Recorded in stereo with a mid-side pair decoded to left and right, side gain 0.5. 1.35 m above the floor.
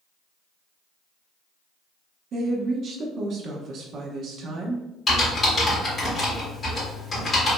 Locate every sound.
2.3 s a woman speaking: 55° right, 1.0 m
5.1 s typing on a keyboard: 40° left, 2.0 m